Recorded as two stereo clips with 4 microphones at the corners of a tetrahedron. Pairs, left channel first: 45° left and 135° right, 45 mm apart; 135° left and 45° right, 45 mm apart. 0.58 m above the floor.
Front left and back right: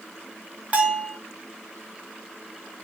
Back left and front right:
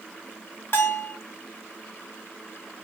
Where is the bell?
170° left, 0.5 m.